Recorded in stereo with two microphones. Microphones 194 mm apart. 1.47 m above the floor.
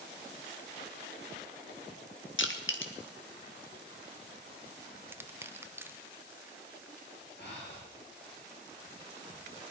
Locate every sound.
2.4 s crushing: 80° left, 1.6 m
5.1 s crushing: 10° right (ahead or behind), 0.6 m
7.4 s breathing: 65° left (ahead or behind), 5.5 m